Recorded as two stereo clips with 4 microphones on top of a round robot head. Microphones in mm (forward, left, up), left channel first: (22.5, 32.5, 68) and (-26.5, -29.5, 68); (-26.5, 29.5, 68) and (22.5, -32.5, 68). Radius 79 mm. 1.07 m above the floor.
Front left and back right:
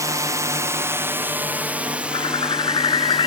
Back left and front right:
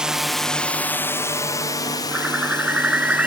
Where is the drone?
125° right; by 3.3 s 145° left.